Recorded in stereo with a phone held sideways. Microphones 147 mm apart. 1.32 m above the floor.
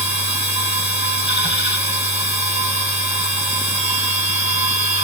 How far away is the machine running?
About 6.5 m.